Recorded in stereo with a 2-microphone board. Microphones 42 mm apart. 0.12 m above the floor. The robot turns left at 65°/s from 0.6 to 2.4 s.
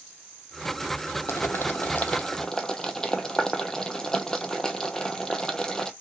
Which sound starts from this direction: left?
Boiling, at 1.3 s.